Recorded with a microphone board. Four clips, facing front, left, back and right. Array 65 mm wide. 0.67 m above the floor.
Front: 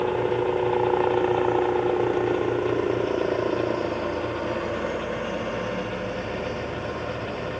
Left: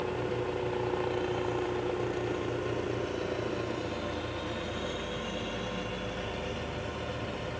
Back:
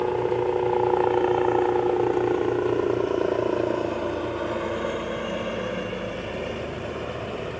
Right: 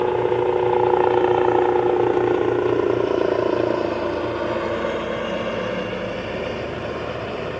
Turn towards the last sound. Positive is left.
turn(degrees=-105)